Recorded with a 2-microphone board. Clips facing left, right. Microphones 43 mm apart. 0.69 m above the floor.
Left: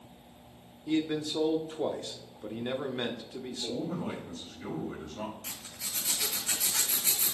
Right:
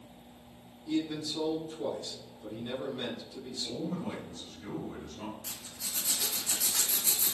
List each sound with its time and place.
0.9 s a man speaking: 50° left (ahead or behind), 1.2 m
3.6 s a man speaking: 70° left (ahead or behind), 2.5 m
5.4 s a zipper: 80° left, 3 m